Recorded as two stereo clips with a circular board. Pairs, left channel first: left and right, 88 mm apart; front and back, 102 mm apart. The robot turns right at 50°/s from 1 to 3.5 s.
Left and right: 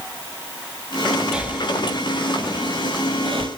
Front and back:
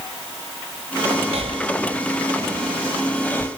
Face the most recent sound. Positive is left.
turn(degrees=-65)